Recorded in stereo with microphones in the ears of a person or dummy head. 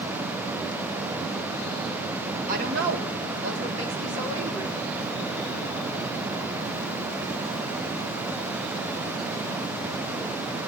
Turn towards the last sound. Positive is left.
turn(degrees=-75)  # may be behind; listen again after turning